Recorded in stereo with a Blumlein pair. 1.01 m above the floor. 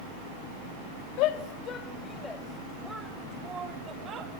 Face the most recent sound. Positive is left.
turn(degrees=-30)